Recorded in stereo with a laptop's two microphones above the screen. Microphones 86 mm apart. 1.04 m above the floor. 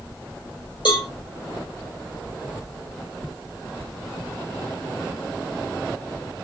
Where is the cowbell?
65° left (ahead or behind), 5 m.